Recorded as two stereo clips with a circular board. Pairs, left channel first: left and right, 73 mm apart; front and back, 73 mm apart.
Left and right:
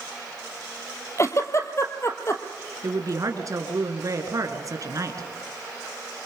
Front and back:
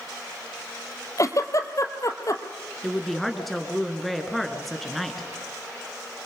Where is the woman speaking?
90° right, 2.5 m.